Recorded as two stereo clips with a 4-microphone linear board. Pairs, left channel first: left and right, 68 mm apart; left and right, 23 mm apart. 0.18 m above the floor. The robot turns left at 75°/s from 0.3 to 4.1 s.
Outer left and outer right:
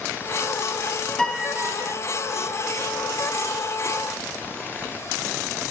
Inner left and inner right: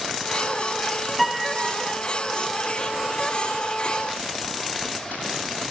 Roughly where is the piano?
Ahead.